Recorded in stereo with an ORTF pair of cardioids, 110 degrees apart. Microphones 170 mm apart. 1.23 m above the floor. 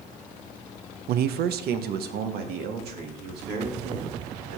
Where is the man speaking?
65° right, 0.5 m; by 4.6 s 70° right, 3.5 m.